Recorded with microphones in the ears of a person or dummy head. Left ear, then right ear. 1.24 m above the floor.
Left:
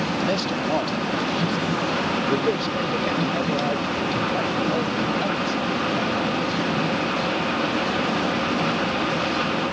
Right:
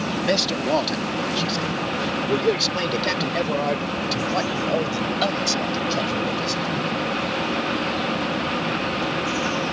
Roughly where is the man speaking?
Right.